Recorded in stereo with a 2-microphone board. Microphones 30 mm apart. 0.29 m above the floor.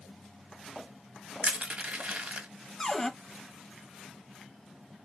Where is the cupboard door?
10° left (ahead or behind), 0.7 m.